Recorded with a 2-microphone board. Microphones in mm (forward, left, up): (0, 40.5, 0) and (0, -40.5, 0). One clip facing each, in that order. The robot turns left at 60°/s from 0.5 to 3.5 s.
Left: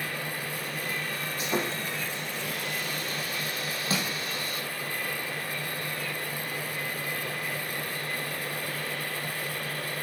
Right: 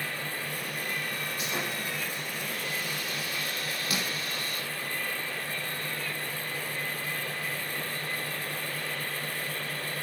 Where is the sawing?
150° left, 4.5 m; by 4.6 s 20° left, 4.5 m.